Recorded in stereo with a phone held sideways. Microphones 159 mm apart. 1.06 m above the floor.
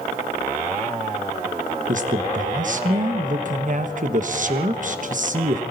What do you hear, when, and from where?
1.9 s a man speaking: 55° right (ahead or behind), 1.3 m